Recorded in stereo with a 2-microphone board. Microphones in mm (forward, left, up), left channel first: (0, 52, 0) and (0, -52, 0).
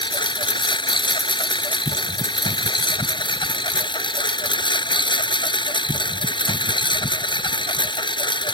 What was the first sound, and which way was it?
A lawn mower, 50° left (ahead or behind).